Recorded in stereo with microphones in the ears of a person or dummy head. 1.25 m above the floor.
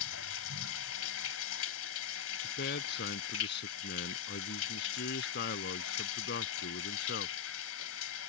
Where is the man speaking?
60° left (ahead or behind).